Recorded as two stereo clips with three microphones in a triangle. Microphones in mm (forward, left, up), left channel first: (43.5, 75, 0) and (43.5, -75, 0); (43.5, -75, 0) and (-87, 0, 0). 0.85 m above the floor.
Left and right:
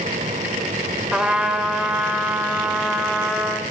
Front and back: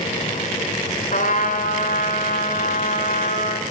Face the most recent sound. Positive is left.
turn(degrees=-5)